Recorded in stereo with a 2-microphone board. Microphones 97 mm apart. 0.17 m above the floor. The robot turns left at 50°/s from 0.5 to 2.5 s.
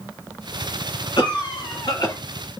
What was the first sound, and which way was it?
A cough, 110° left.